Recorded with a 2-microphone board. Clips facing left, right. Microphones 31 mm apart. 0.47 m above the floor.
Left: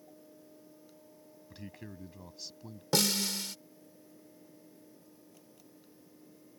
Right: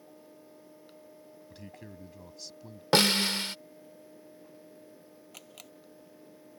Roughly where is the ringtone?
No ringtone in this recording.